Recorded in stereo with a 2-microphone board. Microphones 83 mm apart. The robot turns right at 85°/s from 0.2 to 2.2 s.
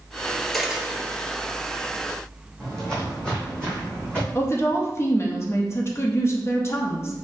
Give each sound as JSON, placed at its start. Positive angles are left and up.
{"t": 0.5, "sound": "a dropped coin", "side_deg": 5, "distance_m": 1.0}
{"t": 2.6, "sound": "footsteps", "side_deg": 10, "distance_m": 2.0}
{"t": 4.3, "sound": "a woman speaking", "side_deg": 35, "distance_m": 0.7}